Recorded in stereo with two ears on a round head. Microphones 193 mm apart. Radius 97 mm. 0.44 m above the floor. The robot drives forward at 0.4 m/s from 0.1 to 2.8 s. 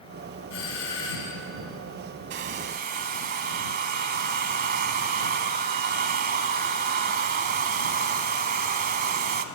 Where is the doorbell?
75° left (ahead or behind), 4.5 m.